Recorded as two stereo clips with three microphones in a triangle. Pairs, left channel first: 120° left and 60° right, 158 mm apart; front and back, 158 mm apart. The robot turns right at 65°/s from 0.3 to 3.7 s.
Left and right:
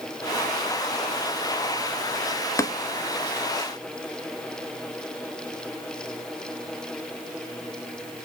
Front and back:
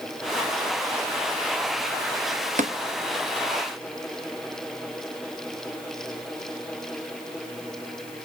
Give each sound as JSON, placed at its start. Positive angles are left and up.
{"t": 2.6, "sound": "tapping", "azimuth_deg": -175, "distance_m": 0.8}